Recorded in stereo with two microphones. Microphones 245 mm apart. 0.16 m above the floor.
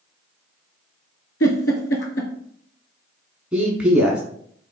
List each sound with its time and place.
1.4 s a giggle: 70° left (ahead or behind), 0.8 m
3.5 s a man speaking: 5° right (ahead or behind), 1.1 m